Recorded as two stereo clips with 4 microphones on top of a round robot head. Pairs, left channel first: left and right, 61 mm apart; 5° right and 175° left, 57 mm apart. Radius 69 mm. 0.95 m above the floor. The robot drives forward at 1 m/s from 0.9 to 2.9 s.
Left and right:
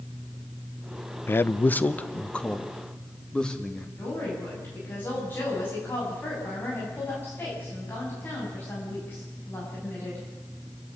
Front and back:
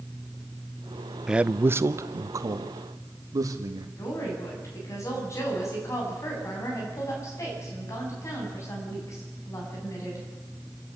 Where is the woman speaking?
30° left, 8.5 m.